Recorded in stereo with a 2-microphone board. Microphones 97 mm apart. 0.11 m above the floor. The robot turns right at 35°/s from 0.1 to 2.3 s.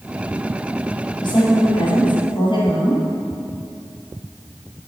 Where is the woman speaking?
65° left, 3 m; by 3.1 s 105° left, 3 m.